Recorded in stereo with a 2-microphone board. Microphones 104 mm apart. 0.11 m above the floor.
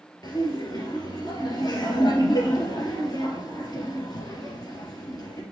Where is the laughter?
40° left (ahead or behind), 2.5 m.